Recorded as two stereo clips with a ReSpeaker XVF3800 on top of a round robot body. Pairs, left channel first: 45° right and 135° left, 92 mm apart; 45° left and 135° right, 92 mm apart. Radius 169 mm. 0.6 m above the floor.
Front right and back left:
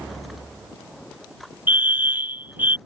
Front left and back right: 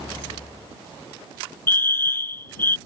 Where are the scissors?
No scissors in this recording.